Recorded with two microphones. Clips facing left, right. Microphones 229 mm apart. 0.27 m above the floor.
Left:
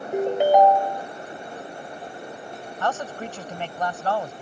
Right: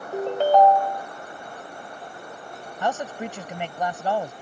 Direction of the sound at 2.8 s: 15° right (ahead or behind).